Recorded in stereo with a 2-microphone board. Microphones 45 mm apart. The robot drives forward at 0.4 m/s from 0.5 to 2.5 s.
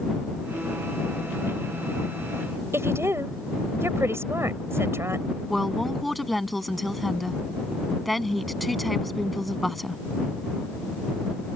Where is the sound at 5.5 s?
5° left (ahead or behind).